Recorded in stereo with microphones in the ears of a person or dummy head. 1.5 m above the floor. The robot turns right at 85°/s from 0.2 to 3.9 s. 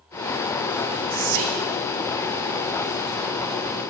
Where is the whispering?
135° right, 0.5 m; by 1.7 s 85° right, 0.5 m.